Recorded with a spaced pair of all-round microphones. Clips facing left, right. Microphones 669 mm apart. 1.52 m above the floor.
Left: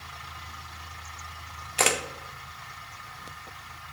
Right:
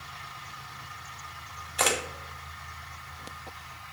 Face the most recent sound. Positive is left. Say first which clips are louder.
# left 2 dB
turn(degrees=55)  # may be behind; listen again after turning